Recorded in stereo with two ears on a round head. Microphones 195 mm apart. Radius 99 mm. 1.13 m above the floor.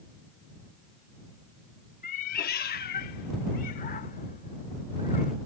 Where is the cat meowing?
35° left (ahead or behind); by 5.3 s 40° left (ahead or behind).